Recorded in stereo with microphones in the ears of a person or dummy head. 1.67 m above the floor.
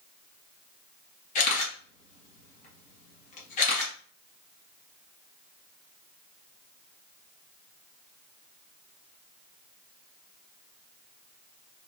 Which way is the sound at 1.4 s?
45° left (ahead or behind).